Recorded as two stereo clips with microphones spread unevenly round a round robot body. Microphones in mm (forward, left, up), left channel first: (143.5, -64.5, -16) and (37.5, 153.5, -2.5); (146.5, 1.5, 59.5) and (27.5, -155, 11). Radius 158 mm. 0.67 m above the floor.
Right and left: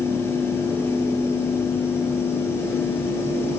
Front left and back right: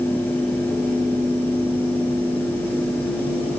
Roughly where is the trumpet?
No trumpet in this recording.